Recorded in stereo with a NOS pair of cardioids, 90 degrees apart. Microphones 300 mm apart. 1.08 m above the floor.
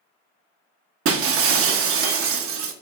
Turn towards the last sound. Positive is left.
turn(degrees=-50)